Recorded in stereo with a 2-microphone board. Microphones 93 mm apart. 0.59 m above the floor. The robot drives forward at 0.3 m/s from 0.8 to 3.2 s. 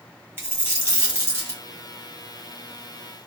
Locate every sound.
0.4 s a dropped coin: 25° right (ahead or behind), 1.6 m; by 1.6 s 30° right (ahead or behind), 1.4 m